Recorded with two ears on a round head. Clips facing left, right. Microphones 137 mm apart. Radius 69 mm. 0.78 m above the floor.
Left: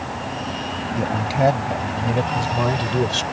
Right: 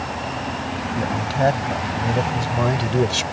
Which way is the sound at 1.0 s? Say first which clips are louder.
Left 1 dB; 15° left (ahead or behind).